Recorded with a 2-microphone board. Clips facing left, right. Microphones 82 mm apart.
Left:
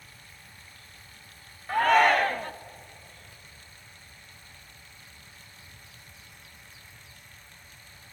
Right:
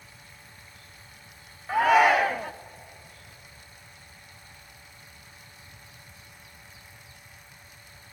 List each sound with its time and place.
1.7 s a shout: 5° right (ahead or behind), 0.6 m